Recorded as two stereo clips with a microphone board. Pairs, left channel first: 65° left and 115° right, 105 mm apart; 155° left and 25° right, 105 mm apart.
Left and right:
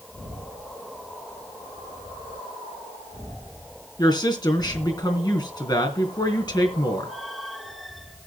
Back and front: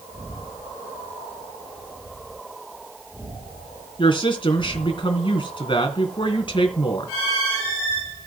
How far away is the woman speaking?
About 3 m.